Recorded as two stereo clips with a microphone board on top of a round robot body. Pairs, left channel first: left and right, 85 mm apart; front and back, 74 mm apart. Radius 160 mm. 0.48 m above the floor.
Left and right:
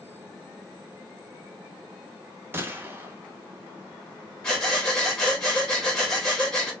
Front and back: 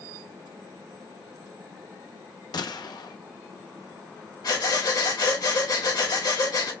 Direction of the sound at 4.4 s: 10° left.